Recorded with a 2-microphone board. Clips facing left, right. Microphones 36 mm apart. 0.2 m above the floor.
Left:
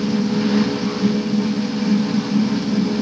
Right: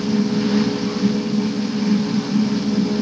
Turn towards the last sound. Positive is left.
No sound to turn to.